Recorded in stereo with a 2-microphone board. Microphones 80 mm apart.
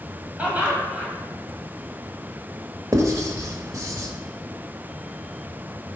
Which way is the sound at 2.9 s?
40° right (ahead or behind).